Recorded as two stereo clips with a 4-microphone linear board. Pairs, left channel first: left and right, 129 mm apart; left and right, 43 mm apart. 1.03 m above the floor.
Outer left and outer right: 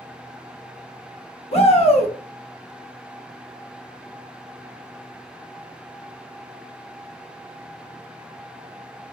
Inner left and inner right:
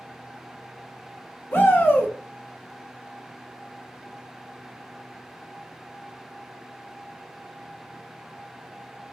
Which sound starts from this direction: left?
A shout, at 1.5 s.